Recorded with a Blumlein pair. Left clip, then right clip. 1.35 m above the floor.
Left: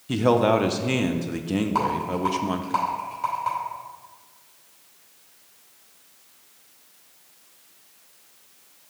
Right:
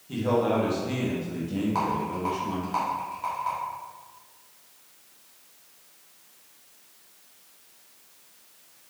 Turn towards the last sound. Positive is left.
turn(degrees=10)